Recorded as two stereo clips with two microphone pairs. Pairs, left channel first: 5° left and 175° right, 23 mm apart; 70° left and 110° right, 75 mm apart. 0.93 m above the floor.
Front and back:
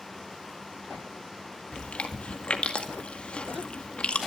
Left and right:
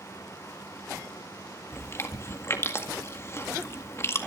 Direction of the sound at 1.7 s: 20° left.